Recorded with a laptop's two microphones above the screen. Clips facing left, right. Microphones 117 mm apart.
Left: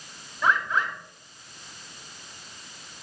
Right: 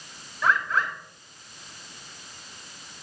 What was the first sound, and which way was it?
A bird, 15° left (ahead or behind).